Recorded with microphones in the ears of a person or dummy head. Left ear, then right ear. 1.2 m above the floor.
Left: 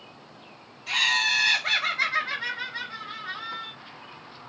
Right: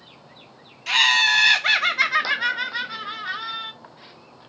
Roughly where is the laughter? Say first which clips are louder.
Right 6 dB; right.